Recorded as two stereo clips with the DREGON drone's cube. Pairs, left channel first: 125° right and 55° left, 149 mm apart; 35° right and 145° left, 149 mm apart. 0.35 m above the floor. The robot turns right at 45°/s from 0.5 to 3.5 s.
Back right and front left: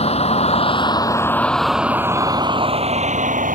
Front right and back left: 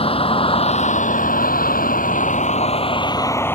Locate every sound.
0.0 s a vehicle: 80° right; by 3.6 s 40° left